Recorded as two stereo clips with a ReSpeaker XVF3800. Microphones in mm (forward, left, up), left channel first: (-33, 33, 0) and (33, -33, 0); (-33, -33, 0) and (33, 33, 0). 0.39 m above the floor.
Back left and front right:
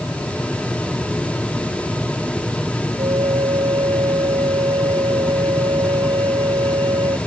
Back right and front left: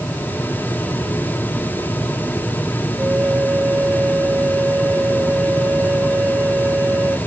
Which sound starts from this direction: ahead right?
A flute, at 3.0 s.